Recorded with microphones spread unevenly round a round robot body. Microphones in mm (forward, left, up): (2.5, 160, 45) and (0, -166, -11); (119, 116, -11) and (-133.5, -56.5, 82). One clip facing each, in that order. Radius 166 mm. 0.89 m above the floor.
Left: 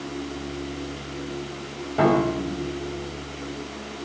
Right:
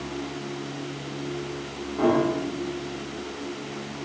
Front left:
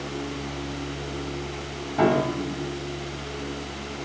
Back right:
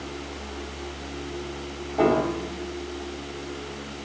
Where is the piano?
90° left, 5 m.